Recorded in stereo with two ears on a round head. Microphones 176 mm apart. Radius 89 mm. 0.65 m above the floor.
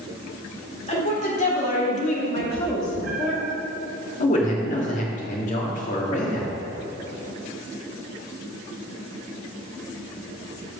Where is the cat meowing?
50° right (ahead or behind), 1.4 m.